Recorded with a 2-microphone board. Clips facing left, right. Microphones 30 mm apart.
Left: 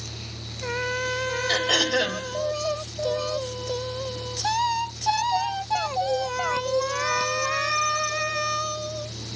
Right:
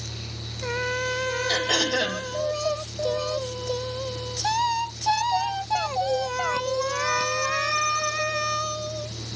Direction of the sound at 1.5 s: 20° left (ahead or behind).